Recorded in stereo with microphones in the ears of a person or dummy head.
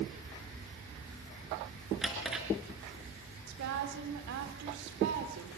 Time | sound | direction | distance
2.0 | a drawer | centre (ahead or behind) | 4 m
3.5 | a woman speaking | 65° right (ahead or behind) | 3.5 m